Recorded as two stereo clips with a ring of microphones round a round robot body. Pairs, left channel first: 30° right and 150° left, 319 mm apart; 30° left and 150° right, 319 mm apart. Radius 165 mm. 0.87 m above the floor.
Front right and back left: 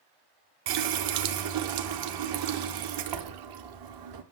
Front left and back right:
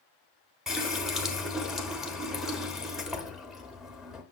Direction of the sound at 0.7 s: 120° left.